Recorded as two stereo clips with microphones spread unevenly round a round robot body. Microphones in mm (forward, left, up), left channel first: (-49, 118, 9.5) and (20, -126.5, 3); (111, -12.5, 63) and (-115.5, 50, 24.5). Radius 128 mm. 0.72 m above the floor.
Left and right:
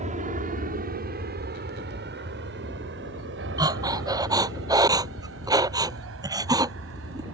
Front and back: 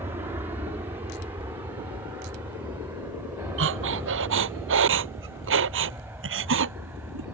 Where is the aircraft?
125° right; by 7.3 s 115° right.